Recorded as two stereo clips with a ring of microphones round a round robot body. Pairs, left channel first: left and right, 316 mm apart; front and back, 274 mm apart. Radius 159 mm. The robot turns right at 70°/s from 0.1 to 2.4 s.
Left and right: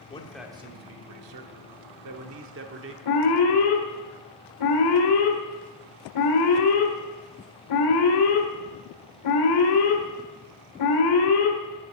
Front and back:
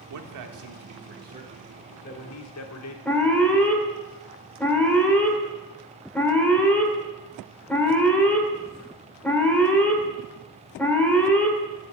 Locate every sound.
0.1 s a man speaking: 160° left, 1.3 m; by 3.0 s 40° right, 1.3 m
3.0 s an alarm: 85° left, 2.5 m